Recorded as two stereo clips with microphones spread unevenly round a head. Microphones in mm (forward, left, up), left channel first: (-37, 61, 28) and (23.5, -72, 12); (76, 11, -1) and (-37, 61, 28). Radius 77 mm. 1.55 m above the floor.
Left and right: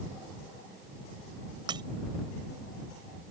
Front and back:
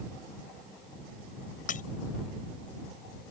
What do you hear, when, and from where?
1.7 s breaking glass: straight ahead